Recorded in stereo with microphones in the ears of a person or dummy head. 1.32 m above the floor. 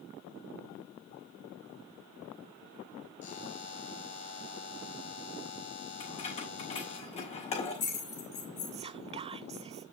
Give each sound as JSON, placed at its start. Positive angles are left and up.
{"t": 3.2, "sound": "a buzzer", "side_deg": 45, "distance_m": 2.5}
{"t": 6.0, "sound": "keys jangling", "side_deg": 35, "distance_m": 3.5}
{"t": 8.7, "sound": "whispering", "side_deg": -30, "distance_m": 0.7}